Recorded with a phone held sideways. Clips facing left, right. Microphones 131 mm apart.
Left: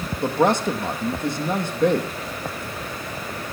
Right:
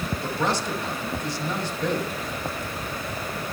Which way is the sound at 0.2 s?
55° left (ahead or behind).